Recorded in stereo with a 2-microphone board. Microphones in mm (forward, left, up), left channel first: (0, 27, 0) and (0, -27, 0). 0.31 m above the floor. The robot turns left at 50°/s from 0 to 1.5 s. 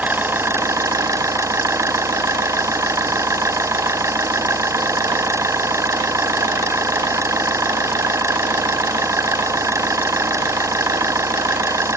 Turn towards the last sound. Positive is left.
turn(degrees=-110)